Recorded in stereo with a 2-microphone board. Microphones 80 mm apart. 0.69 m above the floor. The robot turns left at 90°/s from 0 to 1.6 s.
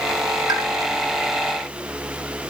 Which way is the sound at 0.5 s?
65° right (ahead or behind).